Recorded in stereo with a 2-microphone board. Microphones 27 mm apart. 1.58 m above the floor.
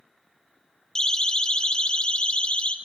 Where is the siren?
25° left (ahead or behind), 2.5 m; by 2.7 s 45° left (ahead or behind), 3 m.